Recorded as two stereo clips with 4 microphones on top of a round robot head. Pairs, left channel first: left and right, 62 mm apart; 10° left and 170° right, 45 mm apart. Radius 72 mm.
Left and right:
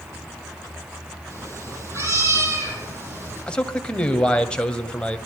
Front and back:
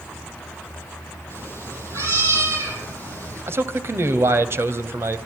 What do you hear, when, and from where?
1.3 s a cat meowing: 140° right, 6 m; by 3.4 s 145° right, 7.5 m
3.5 s a man speaking: 165° left, 2.5 m